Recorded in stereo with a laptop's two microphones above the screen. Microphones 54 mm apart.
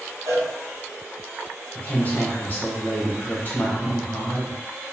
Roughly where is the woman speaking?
Left.